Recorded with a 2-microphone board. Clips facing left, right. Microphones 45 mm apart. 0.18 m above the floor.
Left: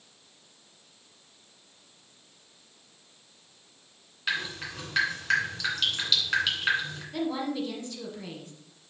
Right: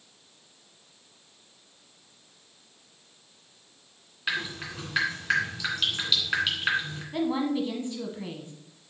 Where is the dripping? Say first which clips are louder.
Even; 10° right (ahead or behind), 2.5 m.